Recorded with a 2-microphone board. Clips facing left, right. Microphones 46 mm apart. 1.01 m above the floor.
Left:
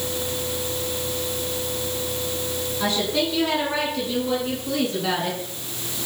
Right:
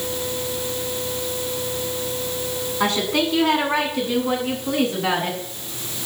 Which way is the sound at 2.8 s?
70° right (ahead or behind).